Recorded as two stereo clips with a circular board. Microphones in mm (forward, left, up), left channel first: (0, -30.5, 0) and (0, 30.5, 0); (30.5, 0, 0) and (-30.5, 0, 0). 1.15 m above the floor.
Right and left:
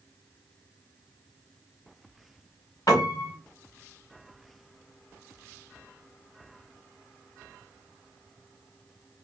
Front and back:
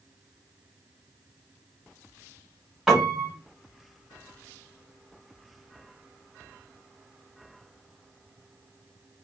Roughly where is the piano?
Right.